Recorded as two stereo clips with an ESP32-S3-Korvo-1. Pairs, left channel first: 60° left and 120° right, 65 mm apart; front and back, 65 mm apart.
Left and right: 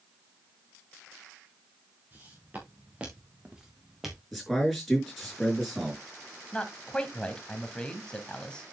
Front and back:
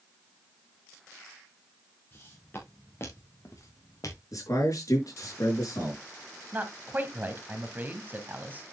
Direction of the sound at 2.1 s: 60° right.